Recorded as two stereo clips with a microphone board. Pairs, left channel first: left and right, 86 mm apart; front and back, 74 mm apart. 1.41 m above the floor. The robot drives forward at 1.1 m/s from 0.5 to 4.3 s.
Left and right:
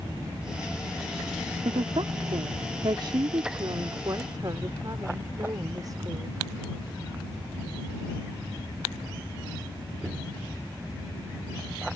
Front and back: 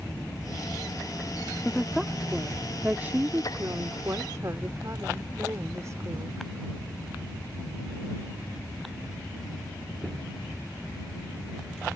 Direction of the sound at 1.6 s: 85° right.